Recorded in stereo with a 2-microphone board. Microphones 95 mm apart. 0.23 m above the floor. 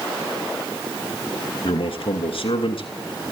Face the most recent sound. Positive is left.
turn(degrees=70)  # may be behind; listen again after turning